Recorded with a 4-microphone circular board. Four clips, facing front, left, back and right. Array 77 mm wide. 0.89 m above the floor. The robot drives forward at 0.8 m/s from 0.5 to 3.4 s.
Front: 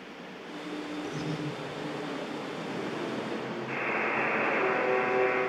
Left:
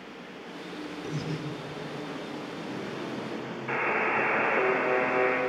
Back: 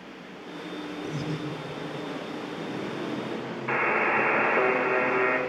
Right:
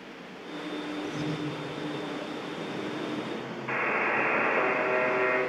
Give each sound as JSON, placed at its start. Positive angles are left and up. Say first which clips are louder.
{"t": 1.0, "sound": "breathing", "louder": "even, back 4 dB", "azimuth_deg": 140, "distance_m": 1.0}
{"t": 3.7, "sound": "a buzzer", "louder": "left 1 dB, back 7 dB", "azimuth_deg": -170, "distance_m": 0.8}